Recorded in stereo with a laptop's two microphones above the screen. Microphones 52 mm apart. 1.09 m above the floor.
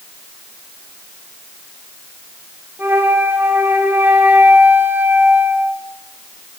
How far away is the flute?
About 9 m.